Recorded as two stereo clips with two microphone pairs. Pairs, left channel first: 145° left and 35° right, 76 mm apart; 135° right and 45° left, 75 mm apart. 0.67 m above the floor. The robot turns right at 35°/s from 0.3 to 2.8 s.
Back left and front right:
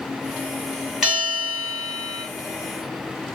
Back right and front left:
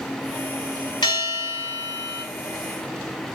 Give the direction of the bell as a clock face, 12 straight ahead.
4 o'clock.